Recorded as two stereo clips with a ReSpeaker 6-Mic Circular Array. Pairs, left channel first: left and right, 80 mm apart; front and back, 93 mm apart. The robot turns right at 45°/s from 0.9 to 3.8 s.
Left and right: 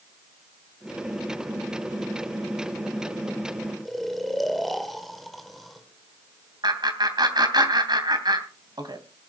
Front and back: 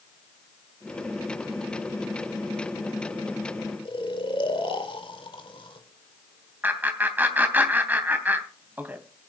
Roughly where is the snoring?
Ahead.